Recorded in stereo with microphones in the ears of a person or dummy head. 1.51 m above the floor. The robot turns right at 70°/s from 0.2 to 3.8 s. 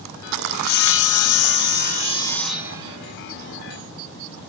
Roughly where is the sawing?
Ahead left.